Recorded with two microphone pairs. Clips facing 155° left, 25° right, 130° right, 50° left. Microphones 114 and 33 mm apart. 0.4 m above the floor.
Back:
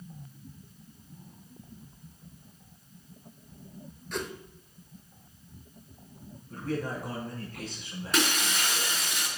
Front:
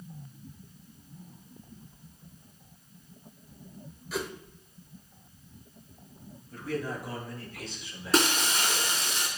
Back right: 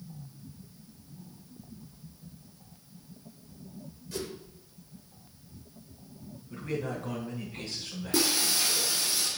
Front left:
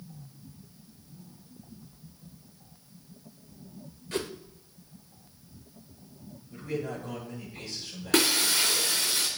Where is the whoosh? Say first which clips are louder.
Front 1 dB, front left 4 dB; 60° left, 0.7 m.